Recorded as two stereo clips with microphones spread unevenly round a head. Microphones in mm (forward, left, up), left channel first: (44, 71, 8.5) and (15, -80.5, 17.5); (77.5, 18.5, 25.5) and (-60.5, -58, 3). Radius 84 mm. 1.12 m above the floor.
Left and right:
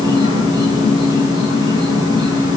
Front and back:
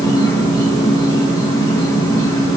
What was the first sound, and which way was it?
An insect, 40° right.